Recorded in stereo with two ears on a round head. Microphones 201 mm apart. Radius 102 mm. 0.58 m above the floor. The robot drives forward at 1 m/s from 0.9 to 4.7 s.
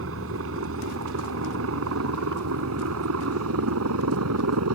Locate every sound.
0.0 s a helicopter: 65° right (ahead or behind); by 4.8 s 75° right (ahead or behind)